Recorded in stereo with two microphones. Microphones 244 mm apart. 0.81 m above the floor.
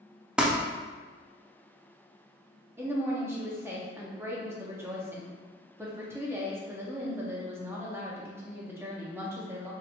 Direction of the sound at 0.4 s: 5° right (ahead or behind).